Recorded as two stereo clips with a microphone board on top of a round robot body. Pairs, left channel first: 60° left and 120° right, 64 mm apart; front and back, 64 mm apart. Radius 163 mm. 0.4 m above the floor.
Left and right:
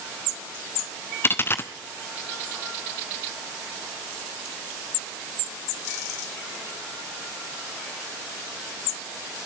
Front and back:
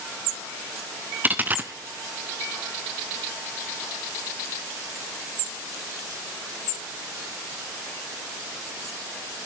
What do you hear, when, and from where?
1.2 s a dropped coin: 115° left, 0.6 m